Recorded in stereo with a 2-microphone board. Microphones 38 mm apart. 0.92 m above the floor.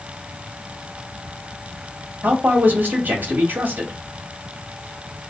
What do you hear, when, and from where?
2.2 s a man speaking: 60° right (ahead or behind), 1.2 m